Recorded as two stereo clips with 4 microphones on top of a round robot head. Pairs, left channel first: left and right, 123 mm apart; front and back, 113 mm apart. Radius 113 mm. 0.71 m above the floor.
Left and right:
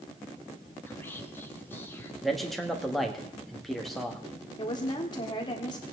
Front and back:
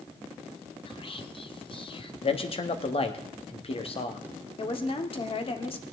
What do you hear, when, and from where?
0.9 s whispering: 20° left, 1.3 m
2.2 s a man speaking: straight ahead, 1.5 m
4.6 s a woman speaking: 35° left, 1.7 m